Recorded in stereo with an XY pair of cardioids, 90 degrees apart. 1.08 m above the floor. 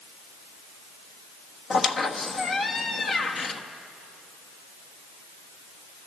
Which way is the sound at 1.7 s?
55° left.